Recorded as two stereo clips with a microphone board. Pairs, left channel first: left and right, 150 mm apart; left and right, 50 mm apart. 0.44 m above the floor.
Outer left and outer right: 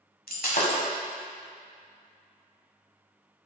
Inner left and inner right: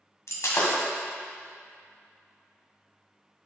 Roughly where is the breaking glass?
Left.